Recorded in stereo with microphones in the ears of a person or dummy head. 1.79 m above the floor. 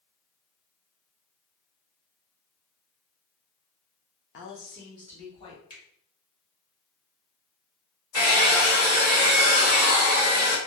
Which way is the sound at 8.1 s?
10° right (ahead or behind).